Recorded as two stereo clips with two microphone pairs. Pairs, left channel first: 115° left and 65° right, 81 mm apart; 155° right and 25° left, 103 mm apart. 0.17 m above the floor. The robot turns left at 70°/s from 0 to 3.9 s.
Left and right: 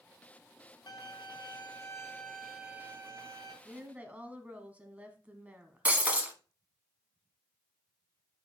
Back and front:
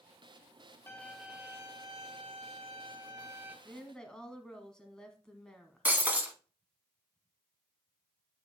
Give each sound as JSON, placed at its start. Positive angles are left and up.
{"t": 0.9, "sound": "a violin", "azimuth_deg": 140, "distance_m": 1.3}
{"t": 3.6, "sound": "a woman speaking", "azimuth_deg": -70, "distance_m": 1.0}
{"t": 5.8, "sound": "breaking glass", "azimuth_deg": -20, "distance_m": 0.9}